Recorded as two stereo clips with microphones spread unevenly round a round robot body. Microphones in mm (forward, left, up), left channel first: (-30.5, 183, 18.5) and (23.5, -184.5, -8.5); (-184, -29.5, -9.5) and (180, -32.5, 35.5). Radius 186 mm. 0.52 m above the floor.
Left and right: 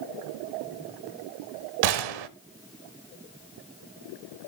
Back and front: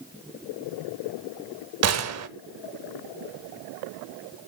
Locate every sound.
1.8 s a gunshot: 55° right, 0.9 m